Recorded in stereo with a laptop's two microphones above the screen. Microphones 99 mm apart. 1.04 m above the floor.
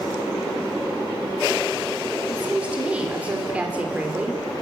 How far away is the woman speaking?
About 2.5 m.